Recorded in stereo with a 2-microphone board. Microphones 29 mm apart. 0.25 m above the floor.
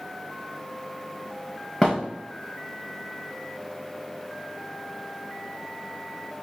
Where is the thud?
5° left (ahead or behind), 4 m.